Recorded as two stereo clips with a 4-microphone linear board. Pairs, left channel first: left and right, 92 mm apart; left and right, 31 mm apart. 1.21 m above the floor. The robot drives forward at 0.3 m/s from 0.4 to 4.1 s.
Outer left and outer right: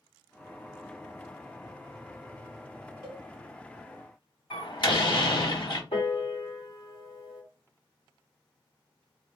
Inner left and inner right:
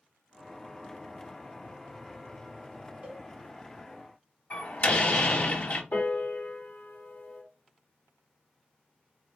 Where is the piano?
80° left, 2 m.